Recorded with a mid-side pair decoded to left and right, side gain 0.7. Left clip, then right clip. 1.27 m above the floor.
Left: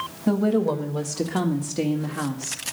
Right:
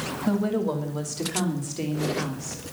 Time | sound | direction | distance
0.3 | a woman speaking | 20° left | 1.6 m